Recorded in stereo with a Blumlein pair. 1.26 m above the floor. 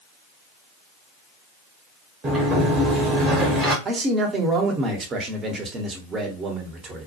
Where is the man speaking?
25° right, 0.8 m.